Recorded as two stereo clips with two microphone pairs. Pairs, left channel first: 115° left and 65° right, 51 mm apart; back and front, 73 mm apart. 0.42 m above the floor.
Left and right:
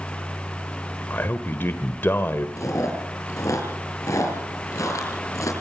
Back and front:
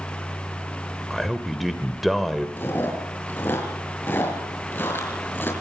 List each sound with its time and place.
1.1 s a man speaking: 90° left, 1.7 m
2.6 s chewing: 115° left, 6 m